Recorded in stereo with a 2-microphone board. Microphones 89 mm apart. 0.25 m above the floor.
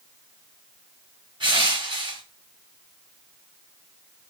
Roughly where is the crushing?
Right.